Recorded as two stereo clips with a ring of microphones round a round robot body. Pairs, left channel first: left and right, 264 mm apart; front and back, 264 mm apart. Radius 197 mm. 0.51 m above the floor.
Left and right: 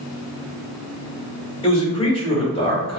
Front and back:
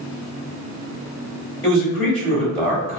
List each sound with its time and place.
1.6 s a man speaking: 45° left, 1.3 m